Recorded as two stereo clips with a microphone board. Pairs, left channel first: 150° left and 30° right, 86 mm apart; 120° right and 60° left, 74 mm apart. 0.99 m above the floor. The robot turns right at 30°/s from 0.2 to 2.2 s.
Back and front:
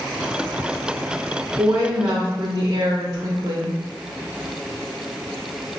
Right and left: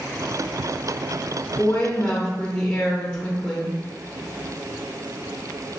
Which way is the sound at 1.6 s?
70° right.